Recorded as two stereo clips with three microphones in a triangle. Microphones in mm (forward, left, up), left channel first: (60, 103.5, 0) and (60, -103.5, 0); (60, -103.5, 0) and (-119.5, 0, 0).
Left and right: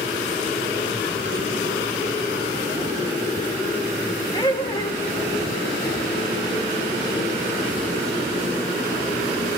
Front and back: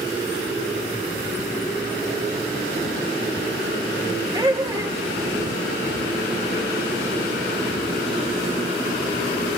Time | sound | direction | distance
4.3 | laughter | 115° left | 0.8 m